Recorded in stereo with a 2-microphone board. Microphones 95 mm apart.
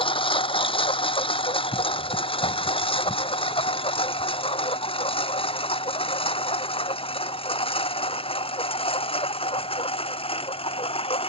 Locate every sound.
0.0 s a lawn mower: 70° left (ahead or behind); by 11.3 s 80° left